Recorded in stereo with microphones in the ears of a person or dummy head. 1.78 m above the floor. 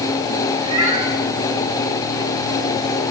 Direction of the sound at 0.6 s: 25° right (ahead or behind).